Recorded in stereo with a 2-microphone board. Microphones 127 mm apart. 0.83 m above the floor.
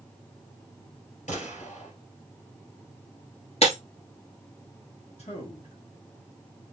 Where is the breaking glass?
50° left (ahead or behind), 1.8 m.